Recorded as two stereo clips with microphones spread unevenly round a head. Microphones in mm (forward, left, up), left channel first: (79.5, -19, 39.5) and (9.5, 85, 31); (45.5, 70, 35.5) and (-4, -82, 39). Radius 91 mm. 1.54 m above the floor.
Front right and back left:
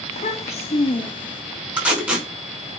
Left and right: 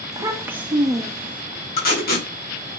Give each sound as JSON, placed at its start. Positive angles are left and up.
{"t": 0.1, "sound": "a child speaking", "azimuth_deg": -45, "distance_m": 1.3}
{"t": 1.8, "sound": "tape being pulled", "azimuth_deg": 45, "distance_m": 4.5}